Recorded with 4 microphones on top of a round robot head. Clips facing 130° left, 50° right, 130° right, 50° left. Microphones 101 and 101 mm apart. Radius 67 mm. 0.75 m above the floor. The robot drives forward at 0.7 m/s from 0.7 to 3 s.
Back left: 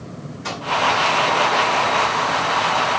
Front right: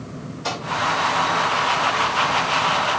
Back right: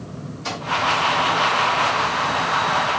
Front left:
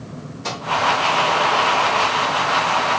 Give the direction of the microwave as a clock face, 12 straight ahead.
11 o'clock.